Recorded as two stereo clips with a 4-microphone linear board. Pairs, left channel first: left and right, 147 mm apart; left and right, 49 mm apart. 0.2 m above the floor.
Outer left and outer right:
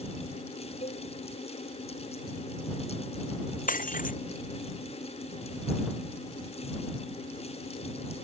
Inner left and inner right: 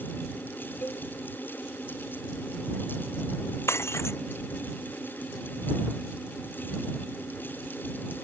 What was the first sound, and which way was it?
A cowbell, 50° left (ahead or behind).